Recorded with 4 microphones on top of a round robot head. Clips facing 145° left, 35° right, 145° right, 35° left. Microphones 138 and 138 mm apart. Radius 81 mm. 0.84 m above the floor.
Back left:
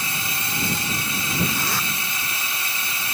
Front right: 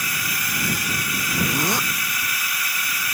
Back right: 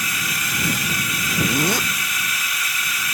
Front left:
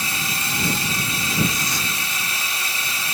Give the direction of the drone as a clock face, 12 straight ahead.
9 o'clock.